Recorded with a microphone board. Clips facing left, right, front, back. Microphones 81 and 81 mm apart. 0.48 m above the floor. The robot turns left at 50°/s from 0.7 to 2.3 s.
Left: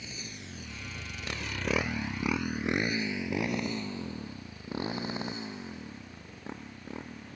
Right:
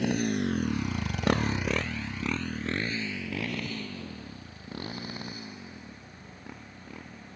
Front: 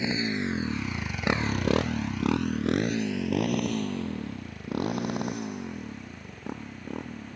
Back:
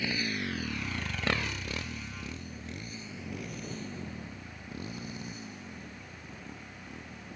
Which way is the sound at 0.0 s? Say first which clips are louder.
Right 18 dB, front 5 dB; 70° right.